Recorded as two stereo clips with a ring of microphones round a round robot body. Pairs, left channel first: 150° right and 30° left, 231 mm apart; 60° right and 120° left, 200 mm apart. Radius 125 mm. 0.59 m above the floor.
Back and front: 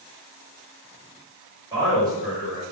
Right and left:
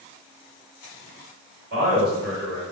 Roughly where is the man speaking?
Left.